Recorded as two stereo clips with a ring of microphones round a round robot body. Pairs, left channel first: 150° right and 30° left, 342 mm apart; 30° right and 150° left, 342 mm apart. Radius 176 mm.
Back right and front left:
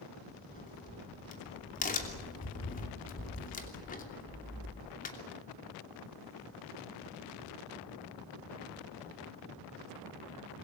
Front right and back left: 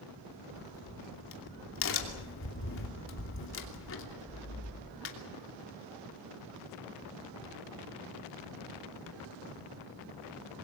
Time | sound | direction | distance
0.5 | a crack | 85° right | 3 m